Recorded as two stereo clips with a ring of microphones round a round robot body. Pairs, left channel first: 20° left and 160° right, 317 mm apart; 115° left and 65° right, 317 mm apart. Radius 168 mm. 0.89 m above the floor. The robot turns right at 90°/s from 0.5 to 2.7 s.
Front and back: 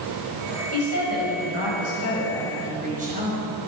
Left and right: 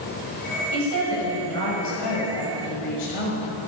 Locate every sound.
0.7 s a woman speaking: 45° right, 6 m; by 3.5 s 135° left, 6 m